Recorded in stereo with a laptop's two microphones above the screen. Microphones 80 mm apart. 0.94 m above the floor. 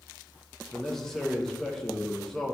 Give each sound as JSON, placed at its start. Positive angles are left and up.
{"t": 0.7, "sound": "a man speaking", "side_deg": 5, "distance_m": 0.7}